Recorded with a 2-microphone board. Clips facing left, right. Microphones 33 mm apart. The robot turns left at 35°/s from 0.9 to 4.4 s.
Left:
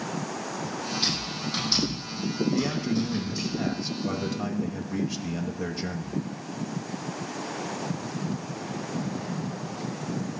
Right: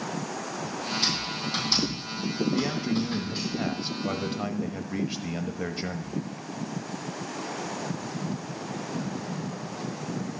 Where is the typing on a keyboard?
20° left (ahead or behind), 7 m; by 3.5 s 65° right (ahead or behind), 7 m.